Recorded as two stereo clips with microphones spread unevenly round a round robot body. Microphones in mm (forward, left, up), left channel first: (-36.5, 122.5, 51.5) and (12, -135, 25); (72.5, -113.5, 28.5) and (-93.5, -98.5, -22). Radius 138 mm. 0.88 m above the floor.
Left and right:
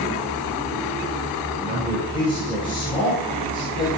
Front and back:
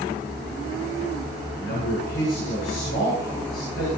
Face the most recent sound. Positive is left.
turn(degrees=30)